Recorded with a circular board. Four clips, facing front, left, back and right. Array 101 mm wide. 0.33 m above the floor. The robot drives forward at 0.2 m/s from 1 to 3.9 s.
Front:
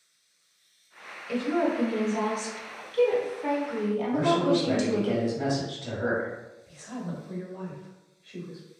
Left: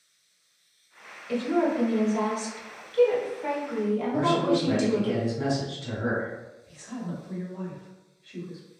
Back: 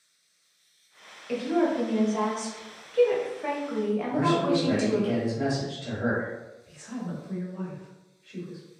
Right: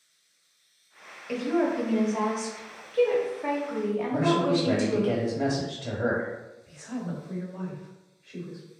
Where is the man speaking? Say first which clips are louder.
Even, front 1 dB; 100° right, 1.1 m.